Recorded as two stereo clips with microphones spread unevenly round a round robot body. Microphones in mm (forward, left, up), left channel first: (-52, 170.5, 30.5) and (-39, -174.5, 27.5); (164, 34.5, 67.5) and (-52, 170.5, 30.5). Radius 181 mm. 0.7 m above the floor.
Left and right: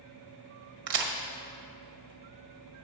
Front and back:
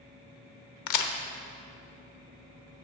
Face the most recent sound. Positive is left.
turn(degrees=-25)